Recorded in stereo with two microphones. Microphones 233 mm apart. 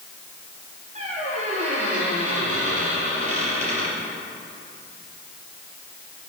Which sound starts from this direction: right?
A squeak, at 0.9 s.